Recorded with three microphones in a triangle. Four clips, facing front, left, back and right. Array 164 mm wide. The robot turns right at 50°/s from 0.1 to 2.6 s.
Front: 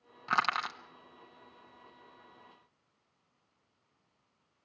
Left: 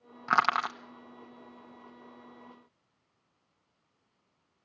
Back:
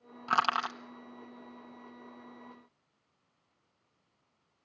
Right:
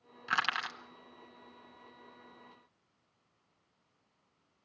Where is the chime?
I don't hear a chime.